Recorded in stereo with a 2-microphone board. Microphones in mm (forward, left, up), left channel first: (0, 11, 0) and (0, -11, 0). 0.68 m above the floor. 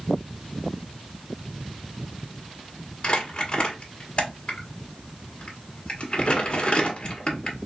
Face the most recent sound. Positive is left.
turn(degrees=50)  # may be behind; listen again after turning